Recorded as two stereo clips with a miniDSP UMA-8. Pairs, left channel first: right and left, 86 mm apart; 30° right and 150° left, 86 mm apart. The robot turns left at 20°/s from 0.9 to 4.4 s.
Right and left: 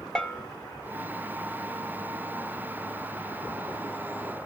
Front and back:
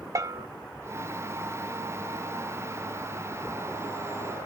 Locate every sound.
0.1 s a bell: 170° right, 1.2 m